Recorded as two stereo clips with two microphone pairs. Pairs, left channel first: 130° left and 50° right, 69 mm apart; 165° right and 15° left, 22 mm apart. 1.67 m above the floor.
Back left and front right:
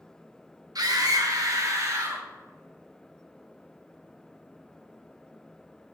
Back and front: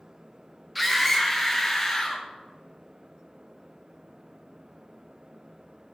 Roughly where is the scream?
Right.